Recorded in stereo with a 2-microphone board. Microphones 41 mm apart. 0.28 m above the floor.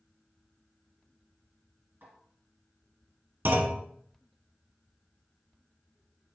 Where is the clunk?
60° right (ahead or behind), 0.6 m.